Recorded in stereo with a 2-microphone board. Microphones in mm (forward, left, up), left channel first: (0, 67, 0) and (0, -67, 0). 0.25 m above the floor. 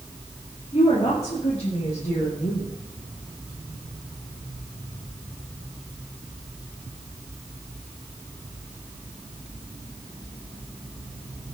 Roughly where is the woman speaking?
Left.